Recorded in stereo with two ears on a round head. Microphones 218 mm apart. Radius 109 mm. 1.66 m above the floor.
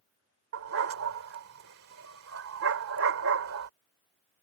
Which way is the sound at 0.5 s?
60° right (ahead or behind).